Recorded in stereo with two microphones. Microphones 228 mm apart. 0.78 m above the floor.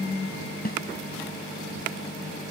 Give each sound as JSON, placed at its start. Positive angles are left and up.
{"t": 0.7, "sound": "a snare drum", "side_deg": 45}